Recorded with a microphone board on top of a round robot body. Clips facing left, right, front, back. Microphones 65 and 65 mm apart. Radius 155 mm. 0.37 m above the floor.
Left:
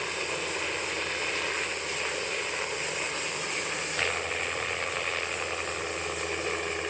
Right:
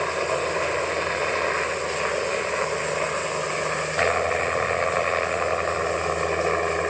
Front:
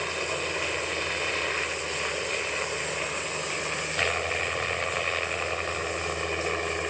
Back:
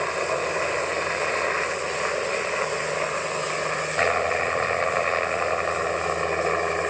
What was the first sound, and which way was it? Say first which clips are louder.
A helicopter: right 9 dB, back 6 dB; 135° right.